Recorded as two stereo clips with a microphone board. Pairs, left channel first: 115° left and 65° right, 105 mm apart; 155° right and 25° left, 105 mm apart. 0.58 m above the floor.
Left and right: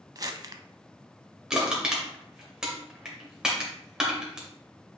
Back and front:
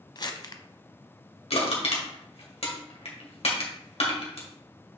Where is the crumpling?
115° right, 0.7 m.